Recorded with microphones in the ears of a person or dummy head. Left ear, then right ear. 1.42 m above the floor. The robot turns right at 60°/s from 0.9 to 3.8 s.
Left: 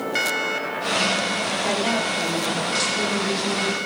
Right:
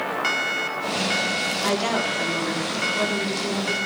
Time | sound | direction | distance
1.6 | a woman speaking | 95° right | 4 m